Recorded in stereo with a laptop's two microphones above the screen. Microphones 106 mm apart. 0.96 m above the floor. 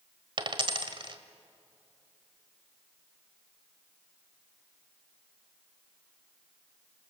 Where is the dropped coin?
50° right (ahead or behind), 1.3 m.